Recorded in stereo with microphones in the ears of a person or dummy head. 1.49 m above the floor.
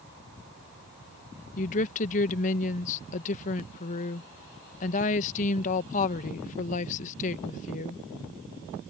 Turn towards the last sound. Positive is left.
turn(degrees=45)  # may be behind; listen again after turning